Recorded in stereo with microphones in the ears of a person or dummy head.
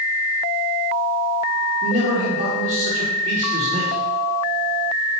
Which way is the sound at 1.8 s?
50° right (ahead or behind).